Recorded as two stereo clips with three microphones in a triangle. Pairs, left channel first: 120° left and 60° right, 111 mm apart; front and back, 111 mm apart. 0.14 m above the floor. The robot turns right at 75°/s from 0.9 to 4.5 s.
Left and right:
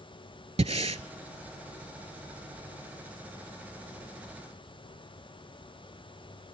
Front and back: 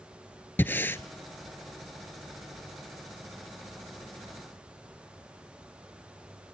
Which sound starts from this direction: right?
Breathing, at 0.6 s.